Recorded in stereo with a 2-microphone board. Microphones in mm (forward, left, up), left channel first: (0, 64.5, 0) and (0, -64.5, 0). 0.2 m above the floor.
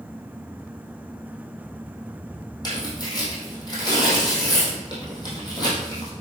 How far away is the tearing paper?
About 4 m.